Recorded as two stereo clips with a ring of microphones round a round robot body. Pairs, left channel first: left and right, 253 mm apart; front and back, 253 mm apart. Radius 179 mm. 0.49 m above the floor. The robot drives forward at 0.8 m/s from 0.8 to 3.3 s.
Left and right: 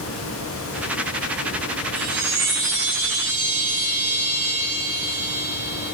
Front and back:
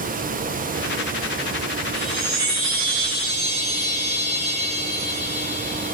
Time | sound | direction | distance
1.9 | a chime | 130° right | 3 m